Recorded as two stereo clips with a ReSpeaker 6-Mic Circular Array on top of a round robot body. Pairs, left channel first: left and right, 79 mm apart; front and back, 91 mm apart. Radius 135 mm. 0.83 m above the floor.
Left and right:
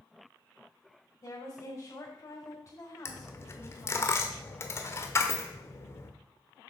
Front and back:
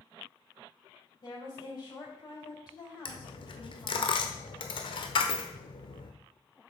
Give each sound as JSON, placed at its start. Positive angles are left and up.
{"t": 1.2, "sound": "a woman speaking", "azimuth_deg": 40, "distance_m": 6.5}
{"t": 3.0, "sound": "a dropped coin", "azimuth_deg": 35, "distance_m": 1.2}